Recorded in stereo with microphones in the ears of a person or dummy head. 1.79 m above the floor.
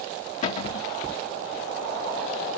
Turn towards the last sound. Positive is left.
turn(degrees=45)  # may be behind; listen again after turning